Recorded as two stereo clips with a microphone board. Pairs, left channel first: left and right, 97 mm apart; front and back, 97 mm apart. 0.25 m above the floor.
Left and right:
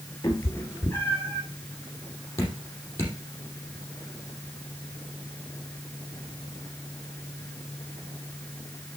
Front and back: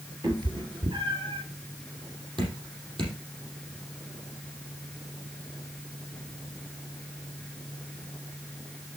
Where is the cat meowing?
140° left, 2.5 m; by 1.4 s 160° left, 3 m.